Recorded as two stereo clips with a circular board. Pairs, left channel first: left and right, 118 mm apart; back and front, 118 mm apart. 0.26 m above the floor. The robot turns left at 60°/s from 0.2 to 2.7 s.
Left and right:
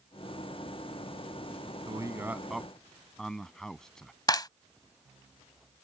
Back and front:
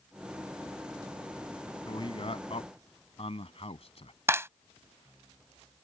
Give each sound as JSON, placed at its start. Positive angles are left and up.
{"t": 1.9, "sound": "a man speaking", "azimuth_deg": -135}
{"t": 4.3, "sound": "a clap", "azimuth_deg": 60}